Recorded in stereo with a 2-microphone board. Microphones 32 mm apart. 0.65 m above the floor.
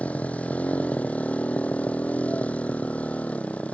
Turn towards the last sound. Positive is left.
turn(degrees=45)  # may be behind; listen again after turning